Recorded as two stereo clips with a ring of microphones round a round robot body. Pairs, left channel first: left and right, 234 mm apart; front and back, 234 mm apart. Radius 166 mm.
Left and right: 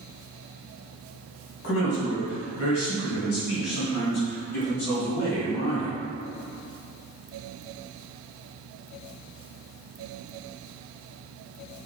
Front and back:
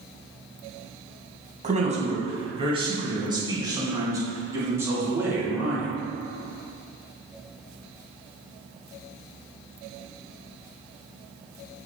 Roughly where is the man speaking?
Behind left.